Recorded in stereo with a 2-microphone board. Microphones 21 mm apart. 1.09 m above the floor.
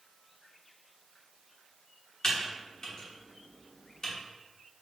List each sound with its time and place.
2.2 s typing on a keyboard: 30° left (ahead or behind), 0.9 m